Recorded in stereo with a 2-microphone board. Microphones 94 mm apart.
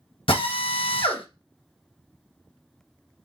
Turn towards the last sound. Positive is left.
turn(degrees=70)  # may be behind; listen again after turning